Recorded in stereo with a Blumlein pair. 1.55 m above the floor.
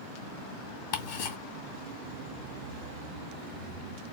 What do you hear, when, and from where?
0.9 s ticking: 50° left, 2.0 m